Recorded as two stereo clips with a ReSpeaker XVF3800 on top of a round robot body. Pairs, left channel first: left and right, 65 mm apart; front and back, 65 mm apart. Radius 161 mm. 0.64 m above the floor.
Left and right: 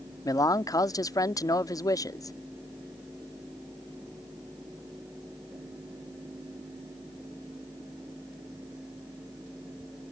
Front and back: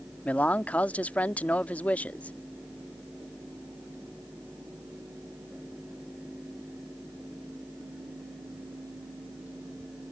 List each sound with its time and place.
0.2 s a man speaking: 65° left